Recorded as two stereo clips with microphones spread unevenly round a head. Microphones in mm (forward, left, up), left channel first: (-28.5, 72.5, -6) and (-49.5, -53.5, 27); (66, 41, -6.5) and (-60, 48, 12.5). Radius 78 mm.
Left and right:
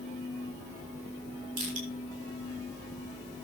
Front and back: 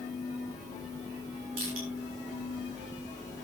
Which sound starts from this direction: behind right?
Crushing, at 1.6 s.